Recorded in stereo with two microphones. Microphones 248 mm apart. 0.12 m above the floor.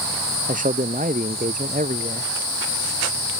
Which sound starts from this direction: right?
A man speaking, at 0.5 s.